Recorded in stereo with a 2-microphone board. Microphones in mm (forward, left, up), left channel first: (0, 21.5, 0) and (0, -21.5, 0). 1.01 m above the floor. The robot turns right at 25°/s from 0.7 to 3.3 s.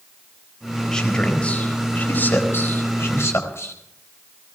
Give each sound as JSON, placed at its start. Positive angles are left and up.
{"t": 0.9, "sound": "a man speaking", "side_deg": 10, "distance_m": 4.0}